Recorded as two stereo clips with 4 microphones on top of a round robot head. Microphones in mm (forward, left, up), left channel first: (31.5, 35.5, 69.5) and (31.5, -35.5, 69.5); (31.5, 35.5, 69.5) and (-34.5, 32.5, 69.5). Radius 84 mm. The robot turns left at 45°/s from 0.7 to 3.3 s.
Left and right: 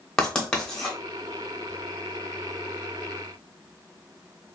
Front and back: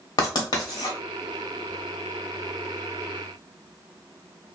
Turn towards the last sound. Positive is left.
turn(degrees=-105)